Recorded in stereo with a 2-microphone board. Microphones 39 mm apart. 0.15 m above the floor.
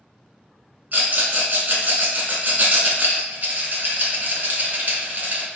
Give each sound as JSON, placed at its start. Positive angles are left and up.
{"t": 0.9, "sound": "a rattle", "side_deg": -45, "distance_m": 1.0}